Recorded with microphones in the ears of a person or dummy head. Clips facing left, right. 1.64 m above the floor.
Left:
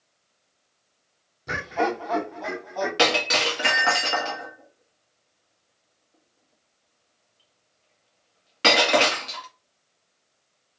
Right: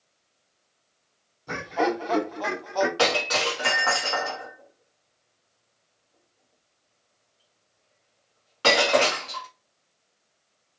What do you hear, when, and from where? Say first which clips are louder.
1.5 s laughter: even; 20° left (ahead or behind), 0.6 m; by 2.9 s 75° right (ahead or behind), 0.9 m
3.0 s breaking glass: left 1 dB; 30° left (ahead or behind), 1.2 m